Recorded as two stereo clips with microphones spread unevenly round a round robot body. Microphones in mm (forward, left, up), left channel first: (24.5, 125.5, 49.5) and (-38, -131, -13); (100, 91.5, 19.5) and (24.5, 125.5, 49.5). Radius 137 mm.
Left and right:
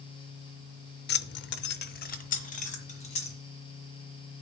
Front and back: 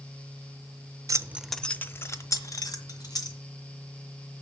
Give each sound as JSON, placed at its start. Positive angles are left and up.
{"t": 1.1, "sound": "keys jangling", "azimuth_deg": 105, "distance_m": 0.6}